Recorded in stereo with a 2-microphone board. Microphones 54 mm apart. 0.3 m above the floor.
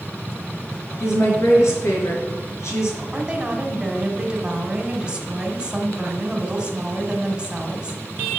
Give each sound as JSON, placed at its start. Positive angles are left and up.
{"t": 1.0, "sound": "a woman speaking", "side_deg": 60, "distance_m": 4.0}
{"t": 3.1, "sound": "a woman speaking", "side_deg": -15, "distance_m": 2.0}